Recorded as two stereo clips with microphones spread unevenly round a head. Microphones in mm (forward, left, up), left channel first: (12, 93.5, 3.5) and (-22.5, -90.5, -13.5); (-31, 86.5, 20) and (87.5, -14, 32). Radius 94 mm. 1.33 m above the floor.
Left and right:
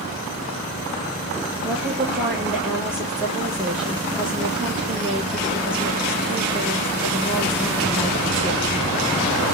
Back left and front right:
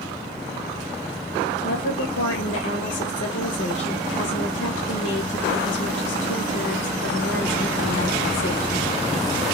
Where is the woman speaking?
175° left, 1.3 m.